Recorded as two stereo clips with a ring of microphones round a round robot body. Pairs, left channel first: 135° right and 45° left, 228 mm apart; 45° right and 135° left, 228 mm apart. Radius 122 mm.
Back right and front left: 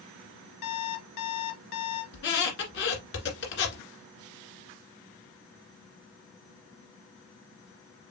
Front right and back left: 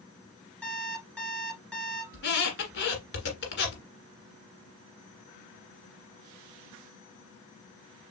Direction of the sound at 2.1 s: 90° right.